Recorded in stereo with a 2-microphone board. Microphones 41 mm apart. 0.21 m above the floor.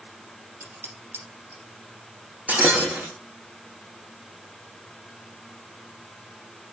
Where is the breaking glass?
40° right (ahead or behind), 4 m.